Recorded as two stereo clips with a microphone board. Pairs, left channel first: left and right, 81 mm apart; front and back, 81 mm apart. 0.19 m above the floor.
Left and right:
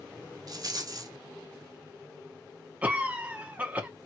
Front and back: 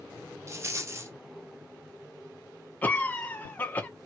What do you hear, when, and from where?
0.5 s a rattle: 125° right, 0.7 m
2.8 s a cough: 40° right, 1.2 m